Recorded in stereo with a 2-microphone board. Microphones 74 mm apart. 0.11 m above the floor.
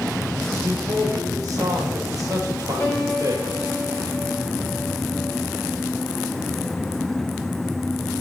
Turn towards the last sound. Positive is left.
turn(degrees=45)  # may be behind; listen again after turning